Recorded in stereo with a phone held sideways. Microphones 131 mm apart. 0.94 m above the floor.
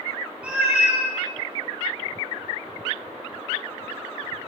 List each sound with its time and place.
0.4 s a cat meowing: 10° right (ahead or behind), 0.8 m